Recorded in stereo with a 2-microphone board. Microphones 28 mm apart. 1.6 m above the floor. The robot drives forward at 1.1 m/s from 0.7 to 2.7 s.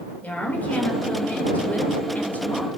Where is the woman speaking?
80° left, 7.5 m; by 2.7 s 65° left (ahead or behind), 8.5 m.